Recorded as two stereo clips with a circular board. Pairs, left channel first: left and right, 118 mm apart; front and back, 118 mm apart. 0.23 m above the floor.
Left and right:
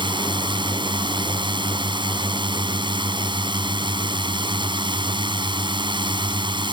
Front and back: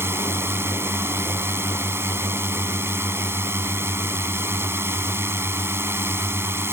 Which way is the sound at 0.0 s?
115° right.